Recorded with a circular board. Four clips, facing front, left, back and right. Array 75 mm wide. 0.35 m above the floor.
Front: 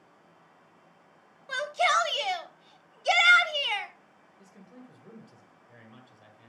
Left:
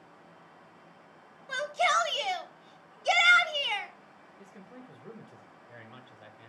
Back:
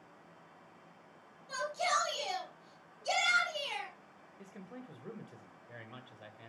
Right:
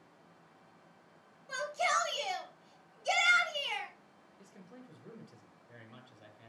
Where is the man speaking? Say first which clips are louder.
Left 4 dB, back 2 dB; 140° left, 1.7 m.